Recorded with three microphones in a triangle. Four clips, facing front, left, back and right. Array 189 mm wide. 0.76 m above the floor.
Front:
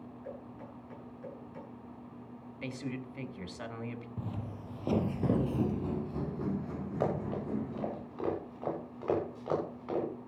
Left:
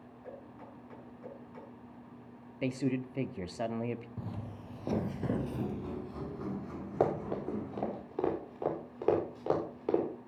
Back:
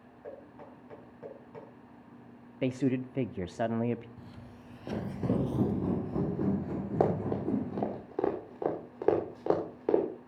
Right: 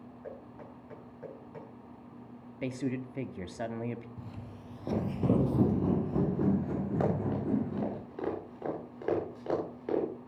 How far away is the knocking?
About 8 m.